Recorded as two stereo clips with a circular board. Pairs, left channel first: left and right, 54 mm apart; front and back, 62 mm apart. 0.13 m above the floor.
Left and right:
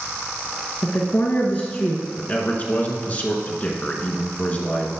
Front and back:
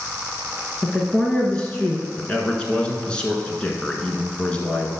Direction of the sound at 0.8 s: 70° left.